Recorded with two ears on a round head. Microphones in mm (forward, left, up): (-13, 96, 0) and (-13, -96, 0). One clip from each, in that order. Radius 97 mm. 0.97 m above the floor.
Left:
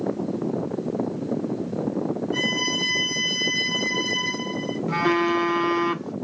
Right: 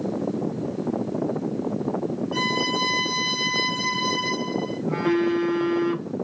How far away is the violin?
About 2.5 m.